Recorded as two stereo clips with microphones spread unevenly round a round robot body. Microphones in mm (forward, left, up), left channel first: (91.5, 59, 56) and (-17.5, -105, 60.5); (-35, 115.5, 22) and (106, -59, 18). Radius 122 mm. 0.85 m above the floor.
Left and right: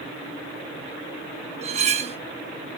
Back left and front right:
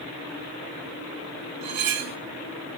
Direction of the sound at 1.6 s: 65° right.